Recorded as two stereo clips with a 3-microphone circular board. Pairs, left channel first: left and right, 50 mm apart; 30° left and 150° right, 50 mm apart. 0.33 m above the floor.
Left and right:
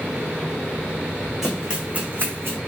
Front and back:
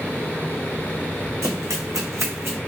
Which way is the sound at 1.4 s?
170° right.